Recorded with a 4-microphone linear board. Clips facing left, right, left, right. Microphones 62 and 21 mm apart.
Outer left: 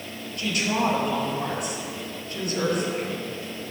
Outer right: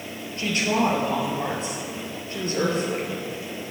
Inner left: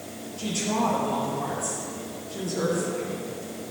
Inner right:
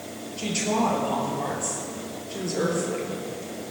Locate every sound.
0.4 s a woman speaking: 30° right (ahead or behind), 4 m